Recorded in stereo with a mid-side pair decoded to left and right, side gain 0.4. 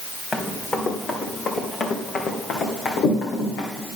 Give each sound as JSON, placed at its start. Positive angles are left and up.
{"t": 0.3, "sound": "running footsteps", "azimuth_deg": 35, "distance_m": 3.5}